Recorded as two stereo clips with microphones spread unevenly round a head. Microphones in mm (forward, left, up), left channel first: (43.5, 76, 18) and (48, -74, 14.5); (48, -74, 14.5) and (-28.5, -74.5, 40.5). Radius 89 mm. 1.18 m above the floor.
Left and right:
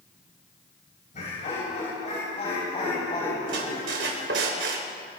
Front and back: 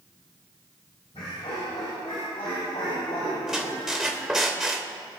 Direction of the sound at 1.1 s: 50° left.